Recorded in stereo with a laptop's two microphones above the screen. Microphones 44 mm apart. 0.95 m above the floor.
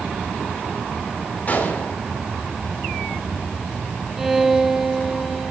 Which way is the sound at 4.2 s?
10° right (ahead or behind).